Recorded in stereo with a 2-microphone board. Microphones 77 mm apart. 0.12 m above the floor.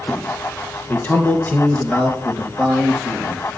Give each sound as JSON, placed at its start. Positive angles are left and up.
{"t": 0.9, "sound": "a man speaking", "side_deg": 25, "distance_m": 2.5}